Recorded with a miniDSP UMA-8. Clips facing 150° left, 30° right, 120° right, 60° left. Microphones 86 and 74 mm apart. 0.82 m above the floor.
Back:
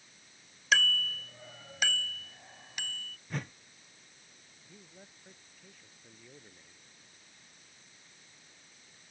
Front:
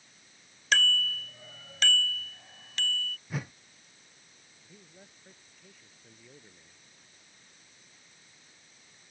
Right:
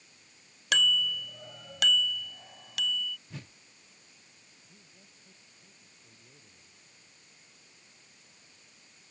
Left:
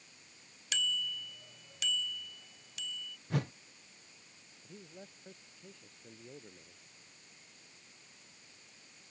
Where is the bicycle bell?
125° right; by 3.2 s 135° right.